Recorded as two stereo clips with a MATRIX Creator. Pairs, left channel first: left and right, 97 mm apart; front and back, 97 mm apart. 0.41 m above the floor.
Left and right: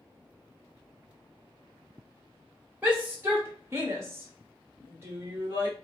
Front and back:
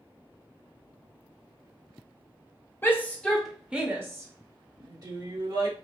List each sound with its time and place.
2.8 s a shout: 40° right, 1.2 m; by 5.7 s 150° right, 2.5 m